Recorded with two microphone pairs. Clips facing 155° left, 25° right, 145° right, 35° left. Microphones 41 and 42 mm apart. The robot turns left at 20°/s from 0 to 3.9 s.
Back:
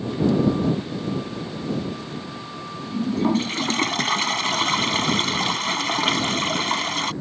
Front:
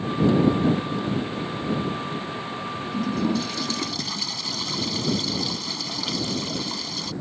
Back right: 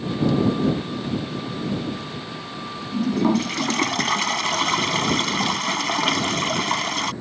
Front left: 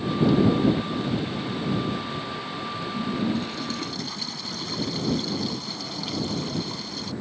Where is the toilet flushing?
150° right; by 7.1 s 170° right.